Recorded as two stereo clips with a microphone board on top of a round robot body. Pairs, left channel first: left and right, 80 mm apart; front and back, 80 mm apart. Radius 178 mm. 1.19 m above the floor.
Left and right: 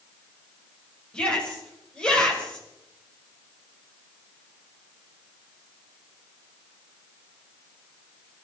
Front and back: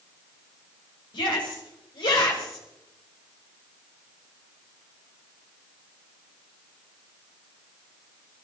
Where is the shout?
10° left, 6 m.